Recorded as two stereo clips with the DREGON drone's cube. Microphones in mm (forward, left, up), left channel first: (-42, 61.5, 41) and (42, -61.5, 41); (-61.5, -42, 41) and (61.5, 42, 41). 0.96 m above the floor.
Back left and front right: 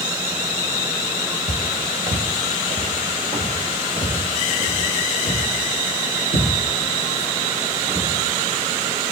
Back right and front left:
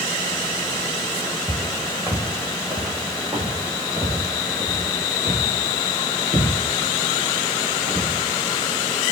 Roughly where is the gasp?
I don't hear a gasp.